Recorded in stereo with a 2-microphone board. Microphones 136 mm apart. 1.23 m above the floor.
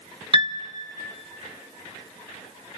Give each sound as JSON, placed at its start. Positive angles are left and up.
{"t": 0.3, "sound": "a piano", "side_deg": -40, "distance_m": 0.7}